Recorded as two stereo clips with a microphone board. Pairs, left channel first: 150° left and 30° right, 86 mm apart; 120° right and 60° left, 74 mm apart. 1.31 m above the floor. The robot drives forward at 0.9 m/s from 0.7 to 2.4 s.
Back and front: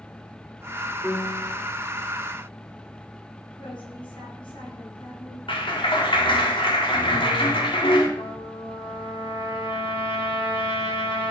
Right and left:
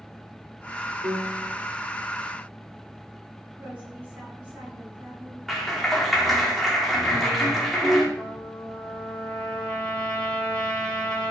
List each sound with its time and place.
1.0 s a piano: 65° left, 4.5 m; by 1.5 s 70° left, 4.5 m
3.6 s a woman speaking: 125° left, 9 m
5.5 s a clap: 150° left, 3.5 m
8.2 s a trumpet: 160° left, 4.5 m